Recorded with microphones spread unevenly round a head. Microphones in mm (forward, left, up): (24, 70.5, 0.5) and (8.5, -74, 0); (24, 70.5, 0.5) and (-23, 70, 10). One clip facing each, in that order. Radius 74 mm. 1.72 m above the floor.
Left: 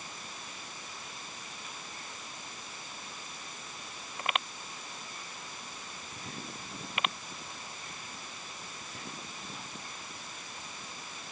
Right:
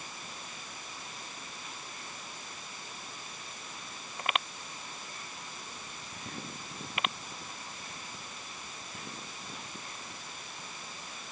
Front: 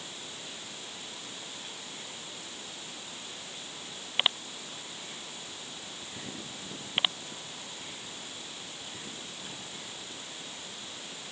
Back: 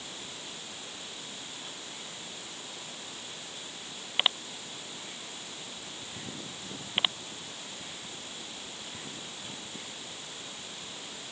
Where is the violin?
No violin in this recording.